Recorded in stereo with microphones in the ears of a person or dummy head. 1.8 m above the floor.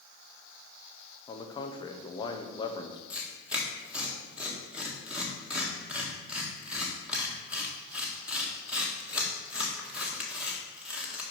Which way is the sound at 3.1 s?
5° right (ahead or behind).